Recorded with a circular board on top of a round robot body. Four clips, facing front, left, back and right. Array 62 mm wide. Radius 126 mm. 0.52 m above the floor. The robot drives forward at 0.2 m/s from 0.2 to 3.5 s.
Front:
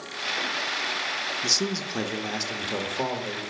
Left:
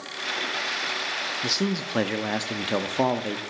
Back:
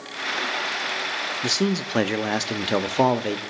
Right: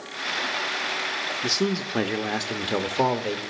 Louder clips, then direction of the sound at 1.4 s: Right 2 dB, back 5 dB; 175° left.